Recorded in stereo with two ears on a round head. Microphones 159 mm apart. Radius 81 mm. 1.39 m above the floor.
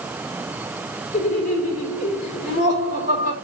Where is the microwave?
No microwave in this recording.